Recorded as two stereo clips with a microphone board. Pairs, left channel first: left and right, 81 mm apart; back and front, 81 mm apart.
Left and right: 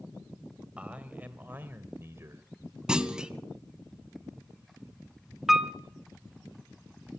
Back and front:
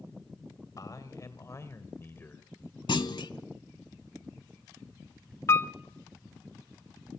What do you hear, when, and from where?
0.8 s a man speaking: 160° right, 2 m; by 2.5 s 120° right, 1.9 m
2.9 s a clunk: 170° right, 0.9 m
5.5 s a piano: 175° right, 0.7 m